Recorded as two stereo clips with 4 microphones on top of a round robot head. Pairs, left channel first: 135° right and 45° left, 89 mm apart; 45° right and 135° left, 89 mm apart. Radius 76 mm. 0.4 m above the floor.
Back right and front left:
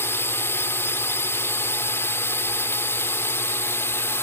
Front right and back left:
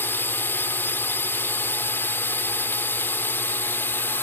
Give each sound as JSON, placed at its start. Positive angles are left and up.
{"t": 0.0, "sound": "a drone", "azimuth_deg": -95}